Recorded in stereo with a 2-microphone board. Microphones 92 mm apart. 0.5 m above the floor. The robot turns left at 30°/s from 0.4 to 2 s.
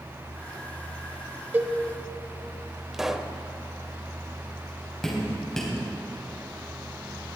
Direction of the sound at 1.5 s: 20° right (ahead or behind).